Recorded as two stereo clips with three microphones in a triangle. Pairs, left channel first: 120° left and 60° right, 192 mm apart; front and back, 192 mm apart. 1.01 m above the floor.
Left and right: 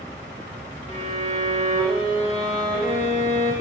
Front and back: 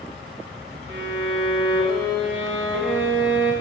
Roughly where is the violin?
Behind.